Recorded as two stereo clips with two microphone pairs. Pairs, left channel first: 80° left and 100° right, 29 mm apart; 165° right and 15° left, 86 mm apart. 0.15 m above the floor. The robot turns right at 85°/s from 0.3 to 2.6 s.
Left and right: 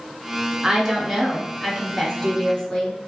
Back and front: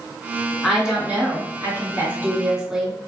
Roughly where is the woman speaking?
Right.